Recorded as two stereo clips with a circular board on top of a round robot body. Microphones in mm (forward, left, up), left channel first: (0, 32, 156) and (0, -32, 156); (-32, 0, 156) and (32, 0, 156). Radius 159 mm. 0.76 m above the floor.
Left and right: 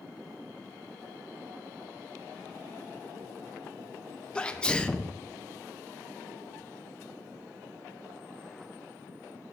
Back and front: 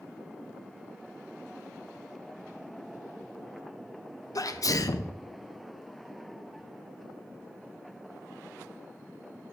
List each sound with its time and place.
4.3 s a sneeze: 165° left, 0.8 m